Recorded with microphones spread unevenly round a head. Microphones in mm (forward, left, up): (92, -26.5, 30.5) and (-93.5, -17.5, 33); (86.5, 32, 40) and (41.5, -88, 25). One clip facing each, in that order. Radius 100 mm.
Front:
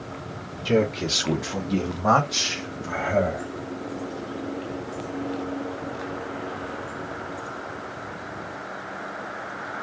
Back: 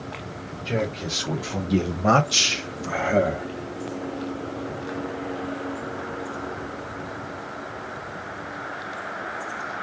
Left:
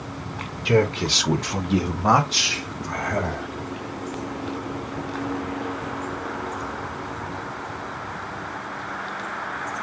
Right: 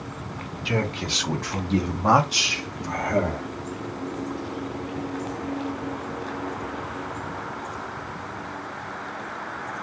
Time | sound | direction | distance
0.7 | a man speaking | 30° left | 0.7 m